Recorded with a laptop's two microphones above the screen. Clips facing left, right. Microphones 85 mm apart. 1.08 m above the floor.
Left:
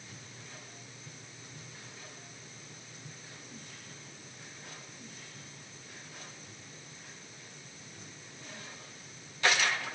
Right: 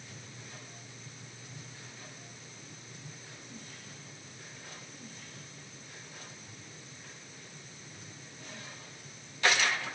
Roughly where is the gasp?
I don't hear a gasp.